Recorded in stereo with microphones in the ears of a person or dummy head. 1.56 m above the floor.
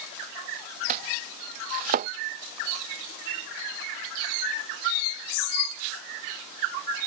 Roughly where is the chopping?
Right.